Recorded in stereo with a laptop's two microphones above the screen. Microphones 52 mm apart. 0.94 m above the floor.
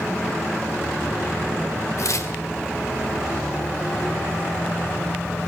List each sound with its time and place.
2.0 s tearing paper: 70° left (ahead or behind), 1.7 m